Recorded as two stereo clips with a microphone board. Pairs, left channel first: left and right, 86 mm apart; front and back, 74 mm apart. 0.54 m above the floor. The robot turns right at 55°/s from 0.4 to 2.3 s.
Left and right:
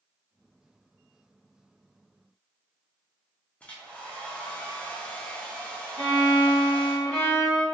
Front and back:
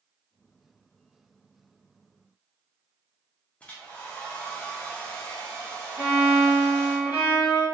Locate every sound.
3.6 s a hair dryer: 40° left, 0.6 m
6.0 s a violin: 10° left, 1.7 m